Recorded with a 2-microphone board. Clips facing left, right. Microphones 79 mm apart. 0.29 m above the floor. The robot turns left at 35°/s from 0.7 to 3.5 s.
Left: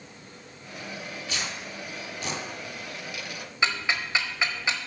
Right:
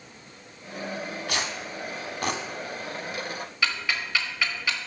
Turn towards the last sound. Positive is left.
turn(degrees=25)  # may be behind; listen again after turning